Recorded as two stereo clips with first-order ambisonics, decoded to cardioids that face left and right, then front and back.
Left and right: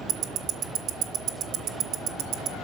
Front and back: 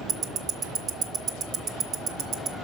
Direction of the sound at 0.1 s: 125° right.